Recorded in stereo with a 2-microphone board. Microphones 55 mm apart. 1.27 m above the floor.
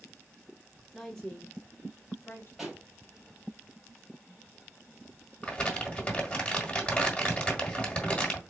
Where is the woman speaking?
Centre (ahead or behind), 0.7 m; by 2.5 s 40° left (ahead or behind), 2 m.